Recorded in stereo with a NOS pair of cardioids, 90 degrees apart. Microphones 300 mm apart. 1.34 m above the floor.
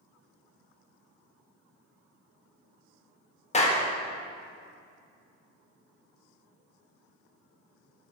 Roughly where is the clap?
Ahead.